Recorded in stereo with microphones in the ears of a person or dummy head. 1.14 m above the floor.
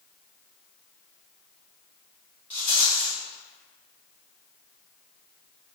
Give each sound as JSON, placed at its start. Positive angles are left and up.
{"t": 2.5, "sound": "a rattle", "side_deg": 5, "distance_m": 1.3}